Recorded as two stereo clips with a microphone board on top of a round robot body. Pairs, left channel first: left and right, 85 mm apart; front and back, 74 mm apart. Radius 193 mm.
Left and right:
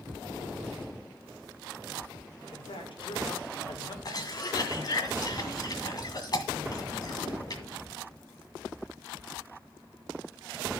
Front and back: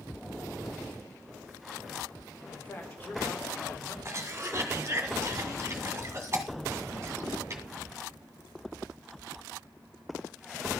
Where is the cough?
125° left, 1.8 m.